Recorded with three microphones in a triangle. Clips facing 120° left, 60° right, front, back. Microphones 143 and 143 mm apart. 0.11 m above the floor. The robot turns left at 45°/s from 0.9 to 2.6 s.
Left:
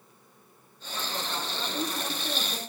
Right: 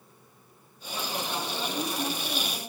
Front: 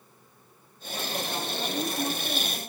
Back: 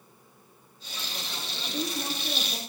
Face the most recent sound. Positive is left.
turn(degrees=135)